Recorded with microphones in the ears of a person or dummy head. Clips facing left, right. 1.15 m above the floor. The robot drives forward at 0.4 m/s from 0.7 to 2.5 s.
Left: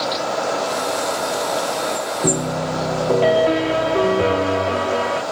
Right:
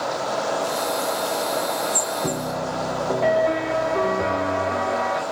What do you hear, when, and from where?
2.2 s a piano: 45° left (ahead or behind), 0.7 m; by 5.2 s 40° left (ahead or behind), 0.8 m